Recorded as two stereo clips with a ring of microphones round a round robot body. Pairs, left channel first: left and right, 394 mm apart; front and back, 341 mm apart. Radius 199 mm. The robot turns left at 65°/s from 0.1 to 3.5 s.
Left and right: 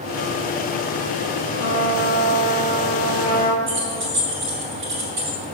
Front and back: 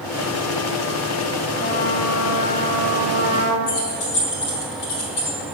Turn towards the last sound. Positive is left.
turn(degrees=-30)